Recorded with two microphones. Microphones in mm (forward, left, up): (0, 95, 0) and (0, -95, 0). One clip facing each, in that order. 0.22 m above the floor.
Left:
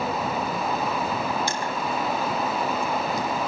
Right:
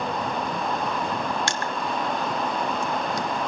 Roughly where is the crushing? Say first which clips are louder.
Left 1 dB; right.